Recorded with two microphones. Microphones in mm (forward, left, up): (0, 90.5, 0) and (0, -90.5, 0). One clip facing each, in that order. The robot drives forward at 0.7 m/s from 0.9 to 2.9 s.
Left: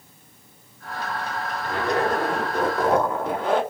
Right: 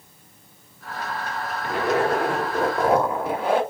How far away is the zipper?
About 0.9 m.